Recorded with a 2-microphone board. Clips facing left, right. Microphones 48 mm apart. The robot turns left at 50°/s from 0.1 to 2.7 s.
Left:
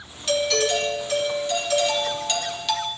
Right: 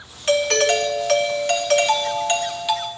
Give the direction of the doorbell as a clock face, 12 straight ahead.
1 o'clock.